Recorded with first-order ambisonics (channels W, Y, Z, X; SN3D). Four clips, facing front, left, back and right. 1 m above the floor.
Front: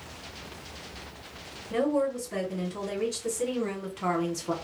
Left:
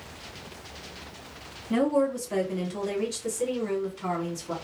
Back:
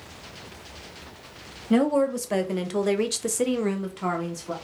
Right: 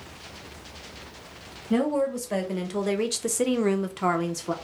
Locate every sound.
1.7 s a woman speaking: 175° right, 1.2 m; by 4.5 s 70° right, 0.7 m